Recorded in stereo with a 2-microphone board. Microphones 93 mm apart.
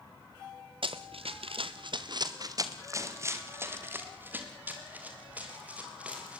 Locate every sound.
0.8 s running footsteps: 70° right (ahead or behind), 1.7 m; by 6.4 s 15° right (ahead or behind), 7.5 m